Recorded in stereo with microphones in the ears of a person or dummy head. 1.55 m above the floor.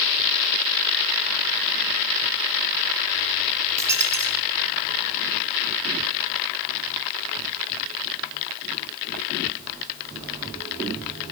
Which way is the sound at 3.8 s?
15° right (ahead or behind).